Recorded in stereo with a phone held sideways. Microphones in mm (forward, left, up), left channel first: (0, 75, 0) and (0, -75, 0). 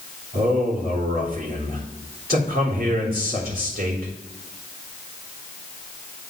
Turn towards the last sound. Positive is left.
turn(degrees=-75)  # may be behind; listen again after turning